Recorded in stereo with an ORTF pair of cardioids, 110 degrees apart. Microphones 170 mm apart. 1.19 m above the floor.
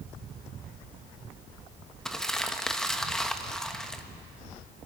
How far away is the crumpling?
About 1.3 m.